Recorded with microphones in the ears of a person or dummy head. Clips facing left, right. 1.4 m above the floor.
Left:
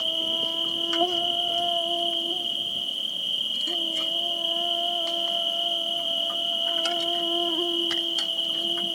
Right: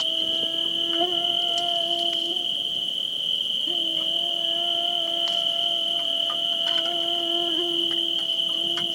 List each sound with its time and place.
0.0 s an insect: 20° right (ahead or behind), 0.8 m